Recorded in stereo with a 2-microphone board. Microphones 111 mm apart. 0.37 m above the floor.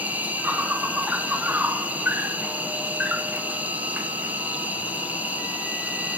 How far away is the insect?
About 1.3 m.